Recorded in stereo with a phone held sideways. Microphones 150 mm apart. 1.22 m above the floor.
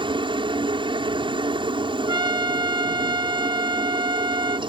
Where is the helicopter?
35° right (ahead or behind).